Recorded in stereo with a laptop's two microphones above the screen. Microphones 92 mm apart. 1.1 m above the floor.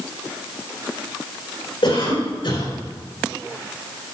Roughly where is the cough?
Left.